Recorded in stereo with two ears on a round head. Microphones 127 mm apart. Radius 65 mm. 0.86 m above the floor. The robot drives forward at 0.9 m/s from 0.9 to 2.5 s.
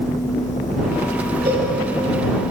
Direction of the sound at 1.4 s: 40° right (ahead or behind).